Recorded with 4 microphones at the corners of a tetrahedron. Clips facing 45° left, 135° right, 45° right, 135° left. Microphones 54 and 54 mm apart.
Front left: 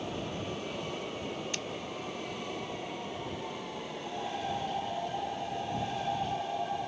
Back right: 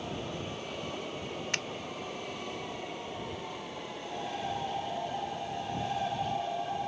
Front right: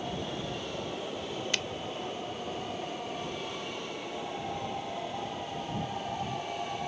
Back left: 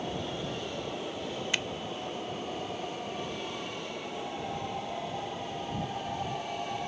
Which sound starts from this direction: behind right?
A finger snap, at 1.5 s.